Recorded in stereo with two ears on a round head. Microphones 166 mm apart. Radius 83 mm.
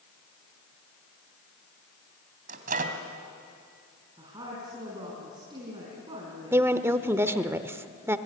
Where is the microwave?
45° right (ahead or behind), 2 m.